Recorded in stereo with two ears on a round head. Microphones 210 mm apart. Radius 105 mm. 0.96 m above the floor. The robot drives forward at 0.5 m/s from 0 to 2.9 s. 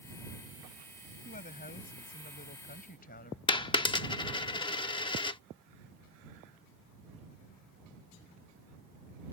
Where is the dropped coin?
20° left (ahead or behind).